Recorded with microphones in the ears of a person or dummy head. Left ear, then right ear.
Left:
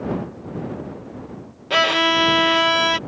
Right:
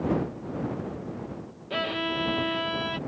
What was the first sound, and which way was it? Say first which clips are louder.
A violin: left 12 dB; 30° left (ahead or behind).